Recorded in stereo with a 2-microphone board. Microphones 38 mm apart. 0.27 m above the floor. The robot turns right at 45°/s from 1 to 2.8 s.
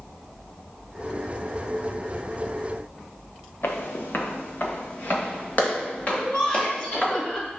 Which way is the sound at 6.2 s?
25° left (ahead or behind).